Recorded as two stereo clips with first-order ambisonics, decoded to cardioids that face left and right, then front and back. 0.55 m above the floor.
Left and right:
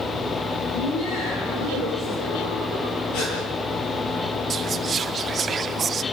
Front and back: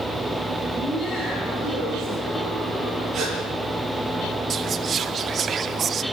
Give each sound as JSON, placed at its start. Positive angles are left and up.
{"t": 0.7, "sound": "laughter", "azimuth_deg": 85, "distance_m": 8.0}
{"t": 3.1, "sound": "a gasp", "azimuth_deg": 120, "distance_m": 8.0}
{"t": 4.5, "sound": "whispering", "azimuth_deg": -140, "distance_m": 0.7}